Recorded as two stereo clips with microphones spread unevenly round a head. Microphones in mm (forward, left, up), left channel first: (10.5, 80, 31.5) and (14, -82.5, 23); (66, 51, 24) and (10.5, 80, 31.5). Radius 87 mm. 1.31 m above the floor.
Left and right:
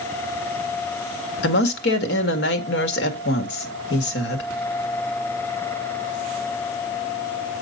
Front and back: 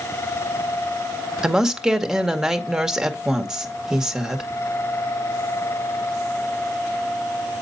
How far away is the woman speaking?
About 2 m.